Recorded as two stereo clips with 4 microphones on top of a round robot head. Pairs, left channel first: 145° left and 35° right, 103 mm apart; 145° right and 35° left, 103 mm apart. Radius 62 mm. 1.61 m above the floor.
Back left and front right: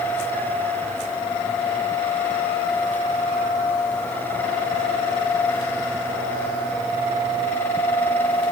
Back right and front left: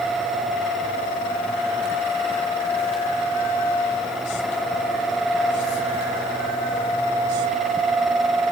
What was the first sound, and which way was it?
Only background noise.